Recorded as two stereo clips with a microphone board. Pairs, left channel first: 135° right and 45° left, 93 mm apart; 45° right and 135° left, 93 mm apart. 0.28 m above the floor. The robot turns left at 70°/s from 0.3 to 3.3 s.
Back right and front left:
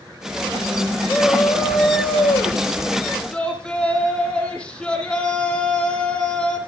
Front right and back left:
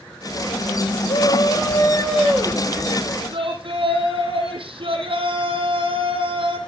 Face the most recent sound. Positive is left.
turn(degrees=145)